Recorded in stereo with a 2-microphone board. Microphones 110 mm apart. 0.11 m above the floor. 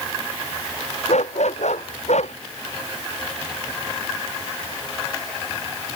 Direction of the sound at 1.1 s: 80° left.